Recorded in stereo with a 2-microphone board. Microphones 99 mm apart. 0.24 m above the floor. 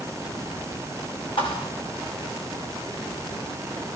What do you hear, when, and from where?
1.4 s a thud: 60° left (ahead or behind), 7 m